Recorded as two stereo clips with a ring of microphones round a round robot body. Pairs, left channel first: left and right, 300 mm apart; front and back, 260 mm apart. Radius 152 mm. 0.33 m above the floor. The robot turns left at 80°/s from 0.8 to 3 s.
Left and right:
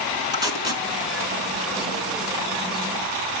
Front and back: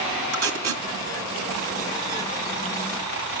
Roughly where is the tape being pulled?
Behind.